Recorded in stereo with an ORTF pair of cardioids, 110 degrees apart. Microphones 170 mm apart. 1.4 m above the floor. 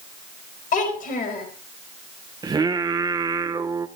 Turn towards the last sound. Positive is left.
turn(degrees=-25)